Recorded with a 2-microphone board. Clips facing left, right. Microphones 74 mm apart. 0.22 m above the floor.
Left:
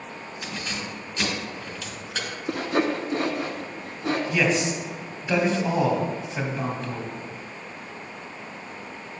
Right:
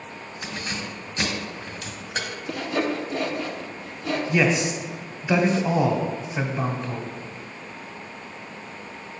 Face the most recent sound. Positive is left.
turn(degrees=-10)  # may be behind; listen again after turning